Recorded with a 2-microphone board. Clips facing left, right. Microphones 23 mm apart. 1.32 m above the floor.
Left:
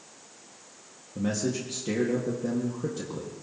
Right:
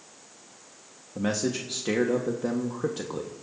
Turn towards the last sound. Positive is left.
turn(degrees=-40)  # may be behind; listen again after turning